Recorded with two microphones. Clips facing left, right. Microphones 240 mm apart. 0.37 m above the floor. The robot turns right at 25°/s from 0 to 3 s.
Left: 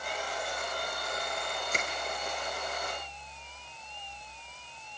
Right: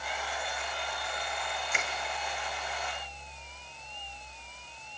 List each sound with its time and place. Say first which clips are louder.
1.7 s crushing: left 2 dB; 40° left (ahead or behind), 4 m; by 1.9 s 45° left (ahead or behind), 4 m